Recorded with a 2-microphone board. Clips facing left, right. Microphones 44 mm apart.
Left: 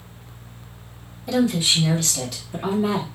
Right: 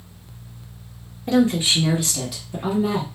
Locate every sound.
1.3 s a woman speaking: 35° right (ahead or behind), 1.0 m; by 3.1 s 15° left (ahead or behind), 1.1 m